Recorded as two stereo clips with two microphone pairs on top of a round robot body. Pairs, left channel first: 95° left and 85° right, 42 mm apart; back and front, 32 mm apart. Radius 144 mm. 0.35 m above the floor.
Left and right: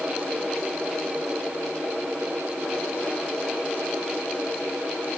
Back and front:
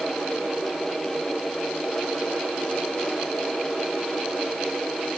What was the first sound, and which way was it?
Only background noise.